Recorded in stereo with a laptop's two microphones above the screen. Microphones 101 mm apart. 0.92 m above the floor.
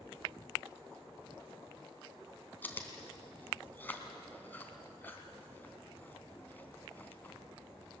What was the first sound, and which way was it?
Chewing, 20° left (ahead or behind).